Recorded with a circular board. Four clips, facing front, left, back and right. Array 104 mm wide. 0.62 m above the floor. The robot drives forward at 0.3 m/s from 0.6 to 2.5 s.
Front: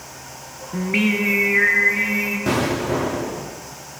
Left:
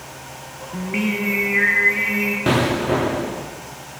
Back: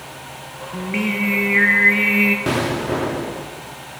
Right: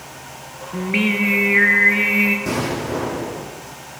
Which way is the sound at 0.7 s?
40° right.